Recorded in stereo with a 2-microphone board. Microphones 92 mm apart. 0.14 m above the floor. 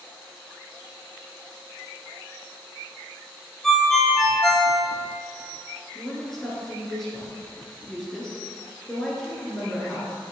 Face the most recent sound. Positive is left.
turn(degrees=5)  # may be behind; listen again after turning